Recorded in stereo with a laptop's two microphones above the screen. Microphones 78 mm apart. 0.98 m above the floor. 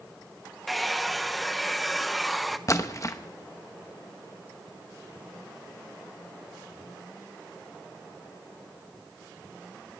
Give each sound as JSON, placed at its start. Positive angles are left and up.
{"t": 0.7, "sound": "a hair dryer", "side_deg": 0, "distance_m": 0.9}
{"t": 2.7, "sound": "a splash", "side_deg": 40, "distance_m": 0.9}